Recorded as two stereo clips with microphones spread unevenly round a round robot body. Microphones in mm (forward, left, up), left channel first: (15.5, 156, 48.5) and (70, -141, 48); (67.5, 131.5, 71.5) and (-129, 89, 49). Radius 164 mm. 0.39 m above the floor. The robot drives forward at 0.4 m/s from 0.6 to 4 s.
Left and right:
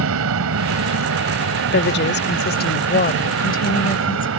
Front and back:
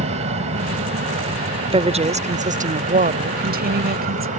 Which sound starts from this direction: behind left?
A woman speaking, at 1.7 s.